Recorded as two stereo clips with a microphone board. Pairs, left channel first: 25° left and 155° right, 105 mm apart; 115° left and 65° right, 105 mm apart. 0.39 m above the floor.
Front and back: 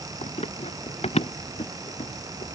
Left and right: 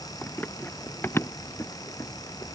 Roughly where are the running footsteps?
Ahead left.